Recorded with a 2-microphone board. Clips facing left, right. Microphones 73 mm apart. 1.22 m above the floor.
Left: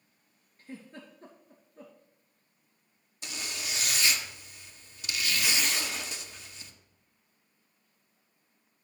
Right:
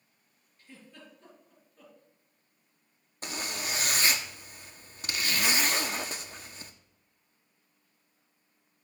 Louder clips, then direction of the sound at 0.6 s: Left 6 dB; 45° left (ahead or behind).